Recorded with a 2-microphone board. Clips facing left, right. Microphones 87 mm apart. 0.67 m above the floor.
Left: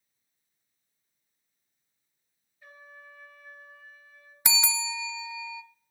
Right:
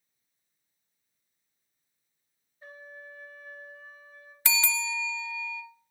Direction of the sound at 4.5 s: 20° left (ahead or behind).